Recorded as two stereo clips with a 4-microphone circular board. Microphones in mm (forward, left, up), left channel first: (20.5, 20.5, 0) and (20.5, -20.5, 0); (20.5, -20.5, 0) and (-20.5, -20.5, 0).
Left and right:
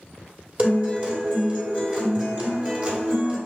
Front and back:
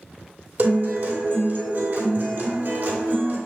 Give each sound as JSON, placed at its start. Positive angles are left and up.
{"t": 0.6, "sound": "a guitar", "azimuth_deg": -135, "distance_m": 2.5}